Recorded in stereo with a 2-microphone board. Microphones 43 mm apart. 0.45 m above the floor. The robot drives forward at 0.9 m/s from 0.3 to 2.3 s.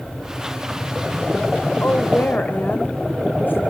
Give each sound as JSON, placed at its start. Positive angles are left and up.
{"t": 1.8, "sound": "a woman speaking", "side_deg": 60, "distance_m": 1.4}